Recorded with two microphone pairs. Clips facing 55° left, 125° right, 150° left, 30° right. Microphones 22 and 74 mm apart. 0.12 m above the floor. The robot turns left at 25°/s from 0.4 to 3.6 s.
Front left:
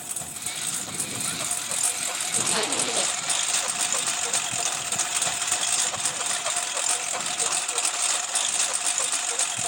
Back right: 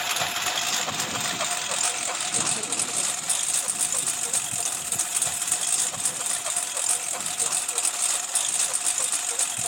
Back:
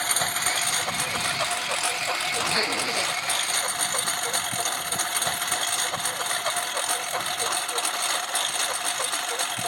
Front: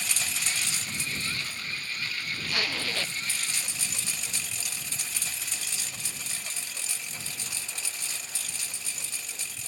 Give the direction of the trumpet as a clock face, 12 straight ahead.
No trumpet in this recording.